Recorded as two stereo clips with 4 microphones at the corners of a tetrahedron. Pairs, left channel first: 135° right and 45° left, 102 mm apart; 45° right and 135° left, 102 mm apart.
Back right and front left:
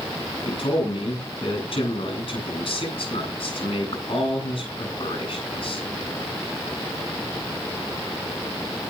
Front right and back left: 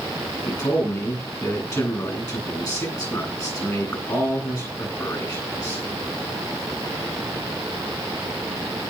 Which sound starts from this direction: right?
A man speaking, at 0.5 s.